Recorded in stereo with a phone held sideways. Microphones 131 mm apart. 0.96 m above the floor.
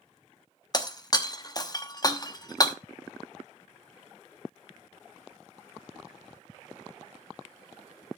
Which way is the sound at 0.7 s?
30° left (ahead or behind).